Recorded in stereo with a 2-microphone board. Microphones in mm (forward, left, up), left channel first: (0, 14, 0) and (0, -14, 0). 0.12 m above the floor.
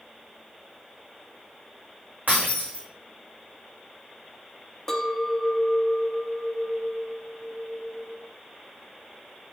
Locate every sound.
2.3 s breaking glass: 80° right, 4 m
4.9 s a clink: 15° left (ahead or behind), 0.9 m